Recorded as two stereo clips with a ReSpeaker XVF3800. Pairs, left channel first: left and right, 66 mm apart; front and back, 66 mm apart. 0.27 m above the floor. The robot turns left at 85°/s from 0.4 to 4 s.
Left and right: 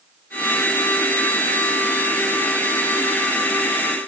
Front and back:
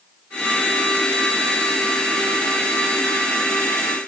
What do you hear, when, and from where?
Only background noise.